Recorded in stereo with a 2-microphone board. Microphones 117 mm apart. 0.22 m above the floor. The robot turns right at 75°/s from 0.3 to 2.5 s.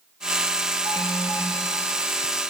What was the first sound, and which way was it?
An alarm, 60° right.